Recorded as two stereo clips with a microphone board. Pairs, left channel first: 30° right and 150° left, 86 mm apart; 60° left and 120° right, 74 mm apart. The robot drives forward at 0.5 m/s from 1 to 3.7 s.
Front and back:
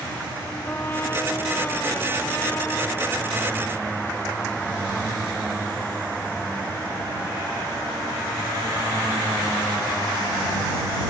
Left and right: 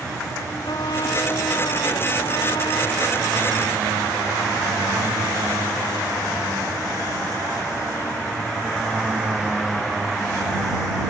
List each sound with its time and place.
0.7 s a trumpet: 35° left; by 3.4 s 40° left